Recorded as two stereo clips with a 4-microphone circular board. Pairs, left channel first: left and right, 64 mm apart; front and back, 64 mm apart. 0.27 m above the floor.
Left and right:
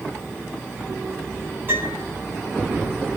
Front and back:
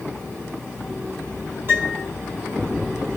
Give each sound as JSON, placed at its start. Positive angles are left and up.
{"t": 1.7, "sound": "a piano", "azimuth_deg": -135, "distance_m": 3.0}